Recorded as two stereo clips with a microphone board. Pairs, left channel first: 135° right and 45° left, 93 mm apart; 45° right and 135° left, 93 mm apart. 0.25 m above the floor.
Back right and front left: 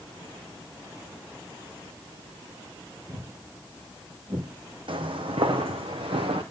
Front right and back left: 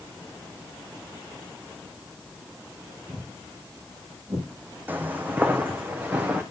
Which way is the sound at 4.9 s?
65° left.